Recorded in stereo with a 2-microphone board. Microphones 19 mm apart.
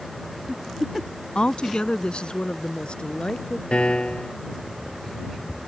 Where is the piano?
75° left (ahead or behind).